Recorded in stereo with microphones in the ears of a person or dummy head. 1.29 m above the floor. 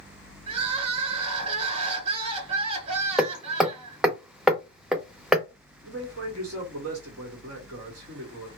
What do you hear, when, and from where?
0.5 s crying: 30° right (ahead or behind), 0.9 m
3.2 s hammering: 5° left (ahead or behind), 0.6 m
5.8 s a man speaking: 80° right, 1.7 m